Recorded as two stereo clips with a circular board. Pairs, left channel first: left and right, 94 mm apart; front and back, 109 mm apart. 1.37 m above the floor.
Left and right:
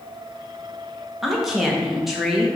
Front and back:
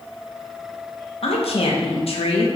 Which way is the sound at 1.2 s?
5° right.